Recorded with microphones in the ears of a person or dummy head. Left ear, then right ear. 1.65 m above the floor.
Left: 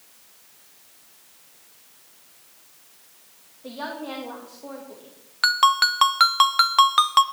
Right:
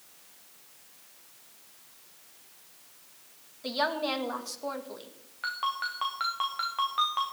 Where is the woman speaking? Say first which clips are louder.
Right 4 dB; 75° right (ahead or behind), 1.9 m.